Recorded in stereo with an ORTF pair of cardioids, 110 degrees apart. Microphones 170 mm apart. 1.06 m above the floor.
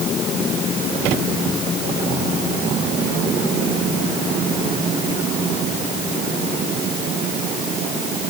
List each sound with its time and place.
Only background noise.